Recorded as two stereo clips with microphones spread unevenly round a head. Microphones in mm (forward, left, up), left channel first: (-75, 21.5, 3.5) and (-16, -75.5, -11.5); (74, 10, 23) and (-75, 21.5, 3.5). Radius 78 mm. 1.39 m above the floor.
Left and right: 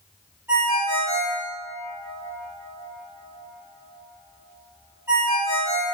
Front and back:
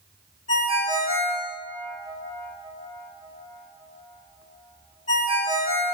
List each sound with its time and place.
0.5 s a ringtone: 15° left, 1.8 m